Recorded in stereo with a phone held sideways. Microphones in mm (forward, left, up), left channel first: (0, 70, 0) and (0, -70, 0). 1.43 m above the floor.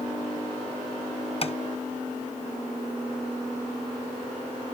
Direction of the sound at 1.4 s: 45° left (ahead or behind).